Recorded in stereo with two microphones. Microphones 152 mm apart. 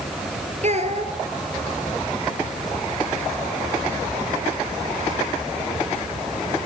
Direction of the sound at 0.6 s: 55° right (ahead or behind).